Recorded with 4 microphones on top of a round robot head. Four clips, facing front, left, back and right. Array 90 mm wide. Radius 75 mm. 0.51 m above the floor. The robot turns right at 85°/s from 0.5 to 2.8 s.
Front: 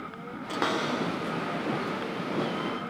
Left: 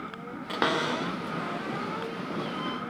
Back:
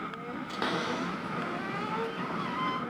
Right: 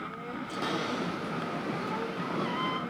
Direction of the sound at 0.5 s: 60° left.